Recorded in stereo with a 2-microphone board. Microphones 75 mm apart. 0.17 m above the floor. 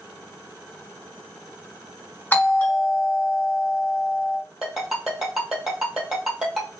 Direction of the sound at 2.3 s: 25° left (ahead or behind).